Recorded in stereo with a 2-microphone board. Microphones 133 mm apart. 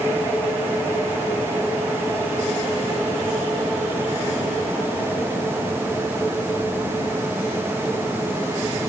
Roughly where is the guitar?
I don't hear a guitar.